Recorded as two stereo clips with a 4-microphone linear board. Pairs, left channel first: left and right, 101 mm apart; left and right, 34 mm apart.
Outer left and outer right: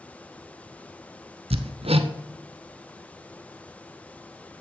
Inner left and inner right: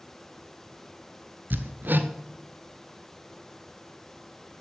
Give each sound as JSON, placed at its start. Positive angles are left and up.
{"t": 1.5, "sound": "hammering", "side_deg": -75, "distance_m": 0.7}